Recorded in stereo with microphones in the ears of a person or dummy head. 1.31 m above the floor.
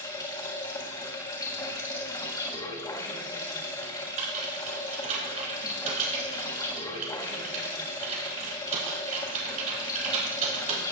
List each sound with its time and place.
0.0 s running water: 20° left (ahead or behind), 1.4 m
3.8 s typing on a keyboard: 40° right (ahead or behind), 4.5 m